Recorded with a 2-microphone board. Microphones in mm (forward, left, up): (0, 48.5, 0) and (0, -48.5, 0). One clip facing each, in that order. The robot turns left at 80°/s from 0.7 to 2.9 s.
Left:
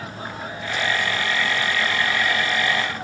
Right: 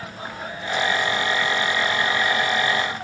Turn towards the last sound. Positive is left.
No sound to turn to.